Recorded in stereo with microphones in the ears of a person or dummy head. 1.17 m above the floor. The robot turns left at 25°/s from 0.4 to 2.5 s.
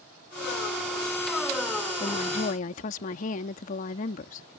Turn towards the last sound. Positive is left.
turn(degrees=50)  # may be behind; listen again after turning